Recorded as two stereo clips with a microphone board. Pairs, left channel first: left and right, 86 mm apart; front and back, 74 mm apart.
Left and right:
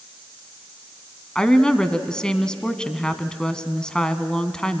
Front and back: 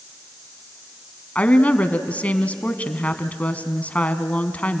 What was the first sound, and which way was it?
A woman speaking, 25° left.